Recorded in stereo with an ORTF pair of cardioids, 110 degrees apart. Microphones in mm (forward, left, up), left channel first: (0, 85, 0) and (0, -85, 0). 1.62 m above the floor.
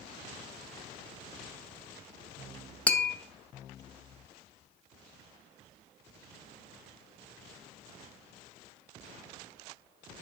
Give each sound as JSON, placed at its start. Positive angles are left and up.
{"t": 2.9, "sound": "tapping", "azimuth_deg": 10, "distance_m": 0.7}